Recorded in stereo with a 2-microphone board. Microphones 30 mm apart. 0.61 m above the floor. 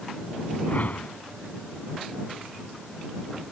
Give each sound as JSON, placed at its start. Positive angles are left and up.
{"t": 0.7, "sound": "a whoosh", "side_deg": 55}